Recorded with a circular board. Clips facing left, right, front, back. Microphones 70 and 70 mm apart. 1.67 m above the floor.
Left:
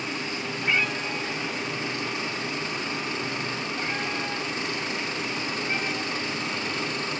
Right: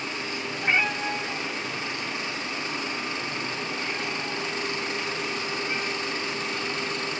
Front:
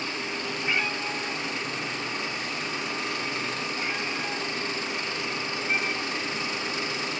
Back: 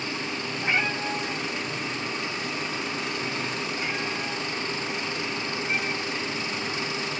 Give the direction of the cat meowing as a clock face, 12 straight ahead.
5 o'clock.